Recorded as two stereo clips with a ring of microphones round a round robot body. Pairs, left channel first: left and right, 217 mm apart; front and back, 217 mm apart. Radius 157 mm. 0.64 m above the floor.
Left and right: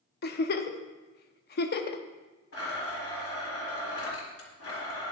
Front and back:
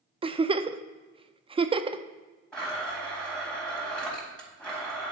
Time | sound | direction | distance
0.2 | a giggle | 120° left | 0.6 m
2.5 | a blender | 85° left | 3.5 m